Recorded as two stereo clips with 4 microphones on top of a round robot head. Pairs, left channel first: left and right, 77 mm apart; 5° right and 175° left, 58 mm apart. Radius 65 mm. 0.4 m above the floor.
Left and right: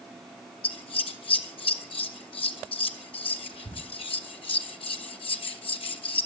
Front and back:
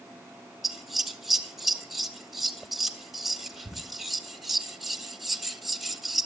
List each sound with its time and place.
0.6 s scissors: 85° left, 2.0 m